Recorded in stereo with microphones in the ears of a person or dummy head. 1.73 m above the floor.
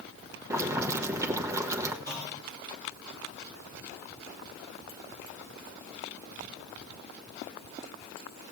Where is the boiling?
15° right (ahead or behind), 1.1 m.